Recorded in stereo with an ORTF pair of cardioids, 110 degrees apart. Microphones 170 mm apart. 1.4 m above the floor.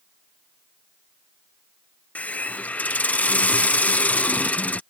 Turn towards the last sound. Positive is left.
turn(degrees=10)